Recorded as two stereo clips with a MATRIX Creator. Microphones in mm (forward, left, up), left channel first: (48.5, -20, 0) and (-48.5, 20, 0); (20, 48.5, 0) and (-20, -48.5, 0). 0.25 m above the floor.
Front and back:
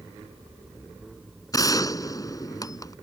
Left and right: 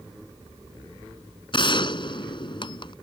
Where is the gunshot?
30° left.